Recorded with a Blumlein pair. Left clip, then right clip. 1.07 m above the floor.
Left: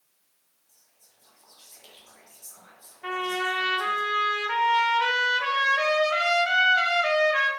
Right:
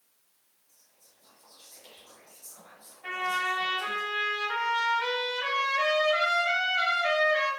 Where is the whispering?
20° left, 1.1 m.